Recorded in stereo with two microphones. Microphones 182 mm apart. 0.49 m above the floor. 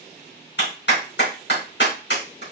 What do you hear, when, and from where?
0.6 s a clap: 75° left (ahead or behind), 4 m